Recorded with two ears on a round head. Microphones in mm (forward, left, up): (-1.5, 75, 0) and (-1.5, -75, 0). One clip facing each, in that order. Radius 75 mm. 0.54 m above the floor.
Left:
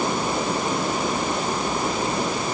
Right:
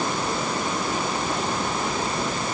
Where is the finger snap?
I don't hear a finger snap.